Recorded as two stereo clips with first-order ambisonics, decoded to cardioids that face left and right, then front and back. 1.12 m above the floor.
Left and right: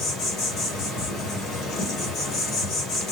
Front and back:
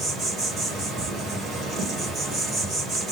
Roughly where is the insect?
Behind left.